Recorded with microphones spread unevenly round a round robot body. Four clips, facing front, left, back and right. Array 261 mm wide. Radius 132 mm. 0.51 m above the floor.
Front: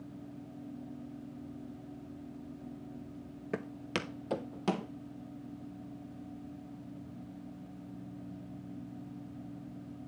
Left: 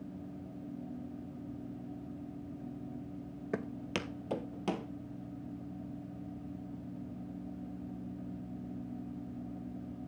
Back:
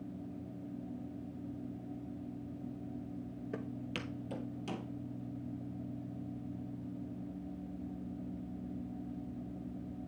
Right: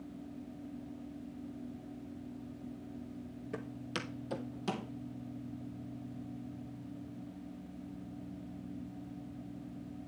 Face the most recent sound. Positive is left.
turn(degrees=20)